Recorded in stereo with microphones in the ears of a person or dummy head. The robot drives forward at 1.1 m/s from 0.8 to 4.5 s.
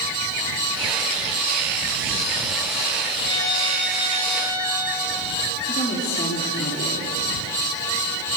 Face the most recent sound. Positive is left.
turn(degrees=30)  # may be behind; listen again after turning